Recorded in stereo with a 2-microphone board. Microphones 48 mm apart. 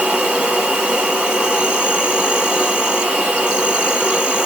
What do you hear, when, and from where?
0.0 s an insect: 20° right (ahead or behind), 0.9 m